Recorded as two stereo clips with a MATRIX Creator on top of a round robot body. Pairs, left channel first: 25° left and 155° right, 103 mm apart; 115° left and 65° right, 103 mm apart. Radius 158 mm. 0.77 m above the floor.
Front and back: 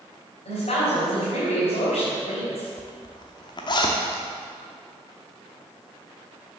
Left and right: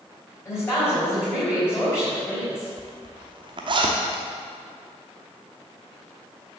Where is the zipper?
25° right, 0.7 m.